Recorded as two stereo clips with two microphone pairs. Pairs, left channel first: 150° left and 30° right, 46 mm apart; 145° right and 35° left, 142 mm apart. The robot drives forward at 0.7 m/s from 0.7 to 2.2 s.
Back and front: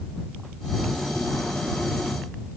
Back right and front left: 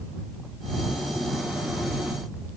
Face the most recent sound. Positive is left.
No sound to turn to.